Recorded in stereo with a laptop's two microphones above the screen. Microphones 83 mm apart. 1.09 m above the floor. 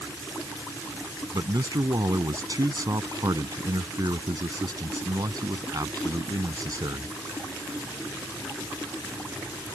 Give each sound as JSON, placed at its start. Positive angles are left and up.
{"t": 1.3, "sound": "a man speaking", "side_deg": -50}